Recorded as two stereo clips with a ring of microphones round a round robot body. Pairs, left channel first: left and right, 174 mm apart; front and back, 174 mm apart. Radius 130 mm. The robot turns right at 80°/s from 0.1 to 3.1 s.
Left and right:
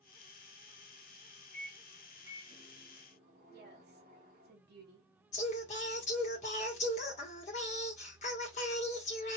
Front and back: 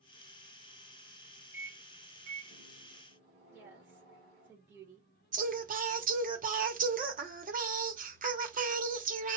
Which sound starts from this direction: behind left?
Singing, at 5.3 s.